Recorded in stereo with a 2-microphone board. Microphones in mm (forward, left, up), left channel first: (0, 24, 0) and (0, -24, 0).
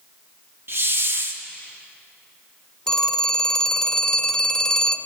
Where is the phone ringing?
10° left (ahead or behind), 1.2 m.